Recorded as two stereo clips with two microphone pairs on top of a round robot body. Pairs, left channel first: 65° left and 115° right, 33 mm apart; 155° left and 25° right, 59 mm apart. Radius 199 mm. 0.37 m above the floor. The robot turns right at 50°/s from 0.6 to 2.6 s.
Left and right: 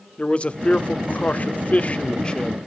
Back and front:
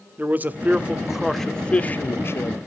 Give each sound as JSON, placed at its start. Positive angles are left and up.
{"t": 0.2, "sound": "a man speaking", "azimuth_deg": 30, "distance_m": 1.3}